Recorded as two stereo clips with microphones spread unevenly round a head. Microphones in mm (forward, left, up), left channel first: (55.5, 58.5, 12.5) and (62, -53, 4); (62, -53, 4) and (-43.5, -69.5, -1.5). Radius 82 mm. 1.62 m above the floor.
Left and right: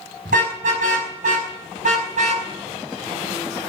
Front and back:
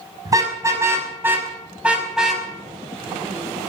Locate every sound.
0.2 s a car horn: 115° right, 5.5 m; by 2.5 s 80° right, 5 m